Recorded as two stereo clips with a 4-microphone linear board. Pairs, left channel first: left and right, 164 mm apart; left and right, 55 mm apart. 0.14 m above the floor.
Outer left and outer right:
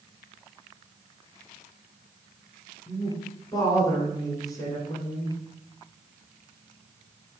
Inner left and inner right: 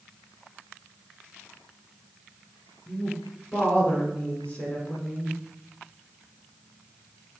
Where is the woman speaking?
20° left (ahead or behind), 1.3 m.